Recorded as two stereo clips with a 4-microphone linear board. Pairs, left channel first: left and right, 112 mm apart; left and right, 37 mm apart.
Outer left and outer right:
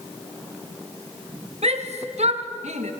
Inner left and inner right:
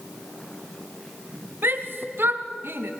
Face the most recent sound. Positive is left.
turn(degrees=-85)